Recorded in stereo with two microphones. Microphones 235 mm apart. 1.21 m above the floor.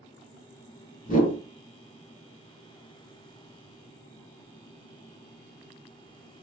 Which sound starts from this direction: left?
A whoosh, at 1.1 s.